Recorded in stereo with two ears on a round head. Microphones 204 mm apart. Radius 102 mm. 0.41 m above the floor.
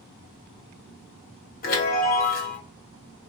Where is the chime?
40° left (ahead or behind), 1.6 m.